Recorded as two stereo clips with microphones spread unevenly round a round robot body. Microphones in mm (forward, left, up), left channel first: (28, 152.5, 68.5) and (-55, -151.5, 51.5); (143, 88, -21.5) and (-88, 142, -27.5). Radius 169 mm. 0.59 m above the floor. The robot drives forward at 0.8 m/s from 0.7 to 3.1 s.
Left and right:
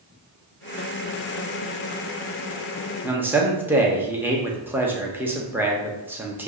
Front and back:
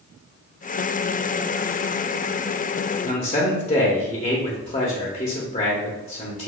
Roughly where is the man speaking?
Ahead right.